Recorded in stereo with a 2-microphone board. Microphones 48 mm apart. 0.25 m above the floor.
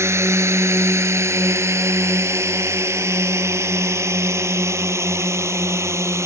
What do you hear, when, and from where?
0.0 s a drone: 70° right (ahead or behind); by 6.3 s 75° right (ahead or behind)